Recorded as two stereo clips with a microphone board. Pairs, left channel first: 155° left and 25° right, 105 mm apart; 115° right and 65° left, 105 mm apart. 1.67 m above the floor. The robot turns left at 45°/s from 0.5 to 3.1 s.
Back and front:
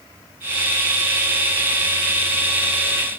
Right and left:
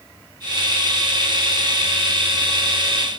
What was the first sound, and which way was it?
Only background noise.